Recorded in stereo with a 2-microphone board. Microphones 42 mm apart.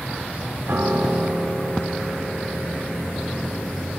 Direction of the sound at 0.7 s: 65° right (ahead or behind).